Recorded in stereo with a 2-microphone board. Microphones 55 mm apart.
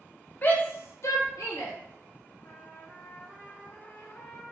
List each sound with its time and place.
0.4 s a shout: 30° left (ahead or behind), 1.0 m; by 1.7 s 75° left (ahead or behind), 1.2 m
2.4 s a trumpet: 35° left (ahead or behind), 1.3 m